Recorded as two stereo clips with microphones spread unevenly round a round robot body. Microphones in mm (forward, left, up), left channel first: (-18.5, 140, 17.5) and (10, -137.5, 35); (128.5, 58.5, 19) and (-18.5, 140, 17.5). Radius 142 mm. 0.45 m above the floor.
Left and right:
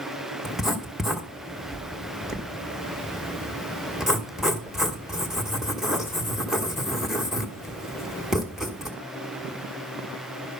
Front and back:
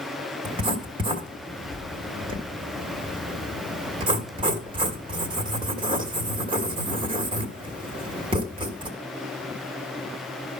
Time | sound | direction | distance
0.5 | writing | straight behind | 1.5 m